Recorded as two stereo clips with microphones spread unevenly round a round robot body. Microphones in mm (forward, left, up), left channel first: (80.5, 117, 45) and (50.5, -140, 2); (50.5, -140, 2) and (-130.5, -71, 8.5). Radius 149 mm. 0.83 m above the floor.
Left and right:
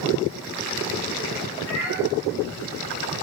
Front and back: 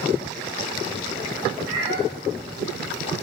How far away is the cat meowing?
About 6.5 m.